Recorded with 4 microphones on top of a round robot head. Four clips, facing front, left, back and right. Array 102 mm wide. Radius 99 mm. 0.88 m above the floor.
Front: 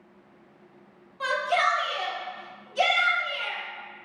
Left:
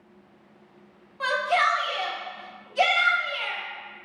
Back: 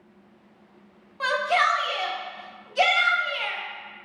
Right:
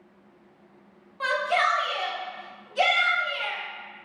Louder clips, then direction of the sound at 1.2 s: Left 1 dB, back 2 dB; 175° right.